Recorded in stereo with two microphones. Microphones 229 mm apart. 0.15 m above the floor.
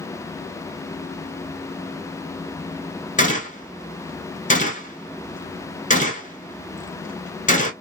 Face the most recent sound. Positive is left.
turn(degrees=35)  # may be behind; listen again after turning